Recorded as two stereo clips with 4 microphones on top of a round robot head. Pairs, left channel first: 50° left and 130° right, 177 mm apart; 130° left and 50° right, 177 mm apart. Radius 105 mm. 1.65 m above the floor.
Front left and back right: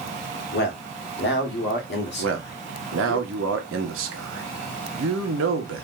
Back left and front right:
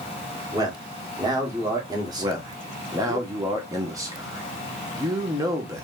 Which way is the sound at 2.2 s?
120° right.